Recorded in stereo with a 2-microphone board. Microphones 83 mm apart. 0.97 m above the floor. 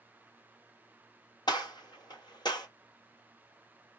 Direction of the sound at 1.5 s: 65° left (ahead or behind).